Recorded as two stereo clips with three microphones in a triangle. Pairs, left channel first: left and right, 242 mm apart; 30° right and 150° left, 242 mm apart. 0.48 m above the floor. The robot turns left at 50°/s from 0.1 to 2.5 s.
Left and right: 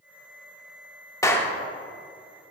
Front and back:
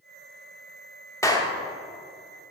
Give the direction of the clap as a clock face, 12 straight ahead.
11 o'clock.